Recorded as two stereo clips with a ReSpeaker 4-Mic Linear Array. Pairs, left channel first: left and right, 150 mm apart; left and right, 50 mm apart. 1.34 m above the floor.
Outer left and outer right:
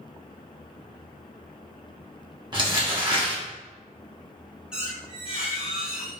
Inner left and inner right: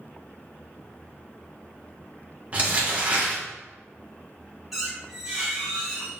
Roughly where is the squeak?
Centre.